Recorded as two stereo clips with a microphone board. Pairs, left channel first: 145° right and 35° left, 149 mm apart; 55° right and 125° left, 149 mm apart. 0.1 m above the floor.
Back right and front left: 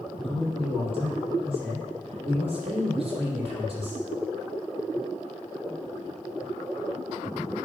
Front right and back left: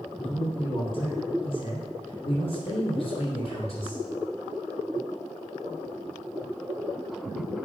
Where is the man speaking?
10° right, 3.5 m.